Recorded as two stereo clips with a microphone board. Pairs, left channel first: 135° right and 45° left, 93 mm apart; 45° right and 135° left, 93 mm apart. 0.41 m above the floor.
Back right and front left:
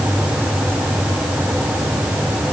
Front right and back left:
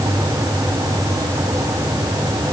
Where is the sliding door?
I don't hear a sliding door.